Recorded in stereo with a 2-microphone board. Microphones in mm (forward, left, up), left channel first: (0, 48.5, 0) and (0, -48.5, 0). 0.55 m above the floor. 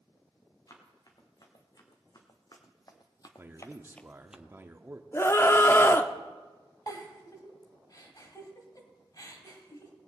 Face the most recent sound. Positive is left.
turn(degrees=45)  # may be behind; listen again after turning